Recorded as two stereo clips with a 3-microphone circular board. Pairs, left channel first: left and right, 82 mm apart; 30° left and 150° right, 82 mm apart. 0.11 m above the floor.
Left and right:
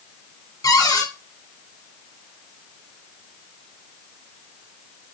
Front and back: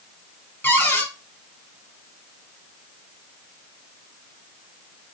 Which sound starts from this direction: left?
A cupboard door, at 0.6 s.